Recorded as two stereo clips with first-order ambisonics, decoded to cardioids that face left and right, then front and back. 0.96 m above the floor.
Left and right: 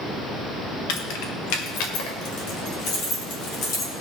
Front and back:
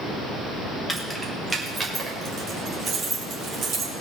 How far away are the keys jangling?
About 1.5 m.